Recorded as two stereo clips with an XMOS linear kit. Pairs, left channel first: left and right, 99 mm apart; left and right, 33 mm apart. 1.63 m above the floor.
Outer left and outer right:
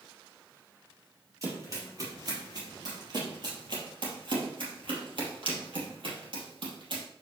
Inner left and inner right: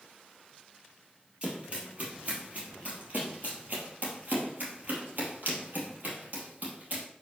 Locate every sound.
1.4 s running footsteps: 35° right (ahead or behind), 3 m; by 7.0 s 55° right (ahead or behind), 3 m